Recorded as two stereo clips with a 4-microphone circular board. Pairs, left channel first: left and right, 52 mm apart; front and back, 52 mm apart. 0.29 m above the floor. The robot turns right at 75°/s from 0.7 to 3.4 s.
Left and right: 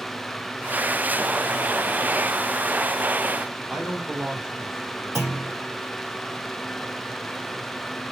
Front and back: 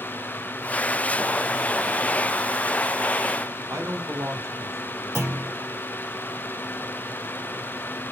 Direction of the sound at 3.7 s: 160° right.